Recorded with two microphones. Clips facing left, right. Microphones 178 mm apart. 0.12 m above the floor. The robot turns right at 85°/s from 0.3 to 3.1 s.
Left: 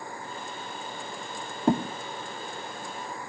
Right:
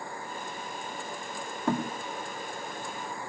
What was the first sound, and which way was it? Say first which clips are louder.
A thud: left 5 dB; 25° left (ahead or behind).